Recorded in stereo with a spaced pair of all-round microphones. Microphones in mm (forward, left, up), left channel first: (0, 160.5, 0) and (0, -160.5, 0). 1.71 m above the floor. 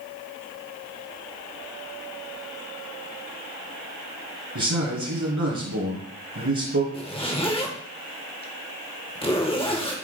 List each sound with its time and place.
4.5 s a man speaking: 65° right (ahead or behind), 2.5 m
6.9 s a zipper: 15° left (ahead or behind), 1.0 m